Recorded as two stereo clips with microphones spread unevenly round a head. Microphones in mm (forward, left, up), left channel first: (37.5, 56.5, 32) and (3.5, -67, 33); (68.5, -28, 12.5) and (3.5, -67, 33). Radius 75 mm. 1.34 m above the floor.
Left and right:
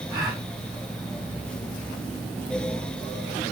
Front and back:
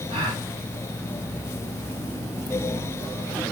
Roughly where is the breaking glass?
I don't hear breaking glass.